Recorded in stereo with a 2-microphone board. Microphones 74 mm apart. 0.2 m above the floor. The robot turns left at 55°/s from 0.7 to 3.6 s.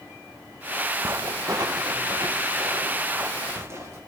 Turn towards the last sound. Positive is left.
turn(degrees=-35)  # may be behind; listen again after turning